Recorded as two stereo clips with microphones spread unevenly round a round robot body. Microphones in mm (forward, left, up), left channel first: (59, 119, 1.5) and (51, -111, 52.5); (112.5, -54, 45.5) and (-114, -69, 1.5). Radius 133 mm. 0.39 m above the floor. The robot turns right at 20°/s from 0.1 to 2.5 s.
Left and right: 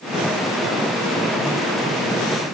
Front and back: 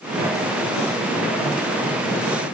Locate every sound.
Only background noise.